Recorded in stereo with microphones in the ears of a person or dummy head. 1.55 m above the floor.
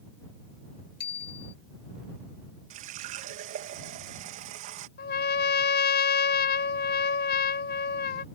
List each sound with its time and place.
1.0 s a bicycle bell: 55° left (ahead or behind)
2.7 s a running tap: 40° right (ahead or behind)
5.0 s a trumpet: 50° left (ahead or behind)